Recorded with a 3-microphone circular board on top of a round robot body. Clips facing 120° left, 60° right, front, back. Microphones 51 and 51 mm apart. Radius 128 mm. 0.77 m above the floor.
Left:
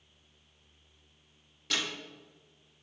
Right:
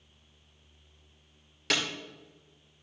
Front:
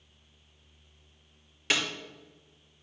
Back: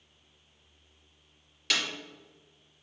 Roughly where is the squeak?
I don't hear a squeak.